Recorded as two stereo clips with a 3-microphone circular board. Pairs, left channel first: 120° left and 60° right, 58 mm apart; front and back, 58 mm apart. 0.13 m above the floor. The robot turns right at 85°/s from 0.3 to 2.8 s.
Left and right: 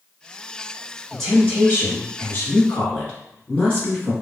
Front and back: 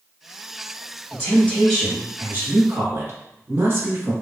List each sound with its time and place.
1.1 s a woman speaking: 35° left, 1.9 m; by 4.1 s 175° left, 1.9 m